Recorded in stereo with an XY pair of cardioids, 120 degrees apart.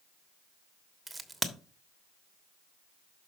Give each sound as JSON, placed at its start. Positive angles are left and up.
{"t": 1.1, "sound": "a crack", "azimuth_deg": -10, "distance_m": 1.3}